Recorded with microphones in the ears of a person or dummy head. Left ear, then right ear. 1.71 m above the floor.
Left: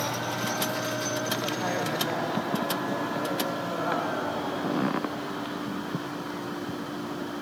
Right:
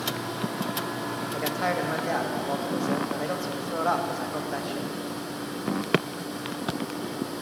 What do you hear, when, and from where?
1.3 s a man speaking: 70° right (ahead or behind), 1.6 m